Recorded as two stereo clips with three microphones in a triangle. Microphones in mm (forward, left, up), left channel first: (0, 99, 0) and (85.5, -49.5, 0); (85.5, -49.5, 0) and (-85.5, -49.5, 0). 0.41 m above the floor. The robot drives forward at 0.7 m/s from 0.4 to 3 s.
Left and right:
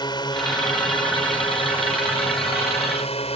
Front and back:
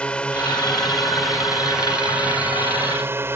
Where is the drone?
80° left; by 3.4 s 115° left.